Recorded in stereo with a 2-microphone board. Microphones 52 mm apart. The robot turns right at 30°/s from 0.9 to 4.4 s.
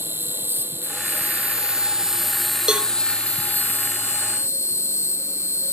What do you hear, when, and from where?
0.0 s an insect: 45° right; by 5.7 s 60° left
2.7 s a cowbell: 15° right (ahead or behind); by 2.9 s 25° right (ahead or behind)